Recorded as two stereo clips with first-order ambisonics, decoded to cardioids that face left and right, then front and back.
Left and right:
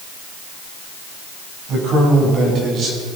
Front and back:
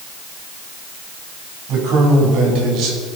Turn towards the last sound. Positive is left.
turn(degrees=-150)